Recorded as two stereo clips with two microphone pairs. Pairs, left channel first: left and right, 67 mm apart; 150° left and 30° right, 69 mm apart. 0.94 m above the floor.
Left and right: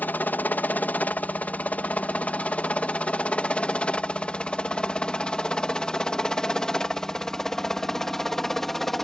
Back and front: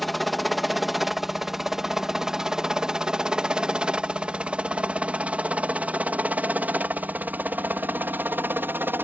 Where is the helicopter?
60° left; by 9.1 s 5° left.